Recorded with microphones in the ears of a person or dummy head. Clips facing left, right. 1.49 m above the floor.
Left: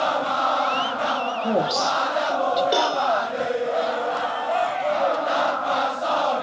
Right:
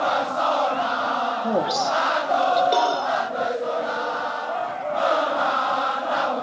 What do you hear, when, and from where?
1.4 s a woman speaking: centre (ahead or behind), 3 m; by 2.6 s 5° left (ahead or behind), 4 m
2.7 s a cowbell: 10° left (ahead or behind), 3 m